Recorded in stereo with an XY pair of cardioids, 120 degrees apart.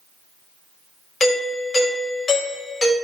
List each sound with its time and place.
1.2 s a doorbell: 35° left, 4 m